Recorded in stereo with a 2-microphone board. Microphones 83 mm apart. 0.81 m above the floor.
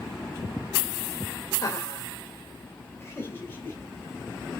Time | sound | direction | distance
1.6 | laughter | 35° left (ahead or behind) | 3 m